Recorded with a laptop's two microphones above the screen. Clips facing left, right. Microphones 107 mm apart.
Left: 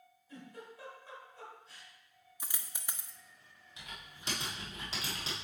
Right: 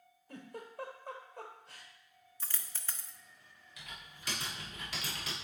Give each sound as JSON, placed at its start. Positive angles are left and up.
{"t": 0.3, "sound": "a giggle", "side_deg": -60, "distance_m": 1.2}
{"t": 2.4, "sound": "a dropped coin", "side_deg": 15, "distance_m": 0.5}
{"t": 3.8, "sound": "typing on a keyboard", "side_deg": 25, "distance_m": 1.6}